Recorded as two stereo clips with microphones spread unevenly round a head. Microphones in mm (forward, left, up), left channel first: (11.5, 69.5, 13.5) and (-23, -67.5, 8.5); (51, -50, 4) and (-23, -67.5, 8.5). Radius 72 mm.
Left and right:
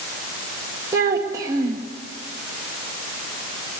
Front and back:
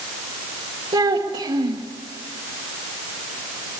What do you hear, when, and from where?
0.9 s a child speaking: 170° right, 1.8 m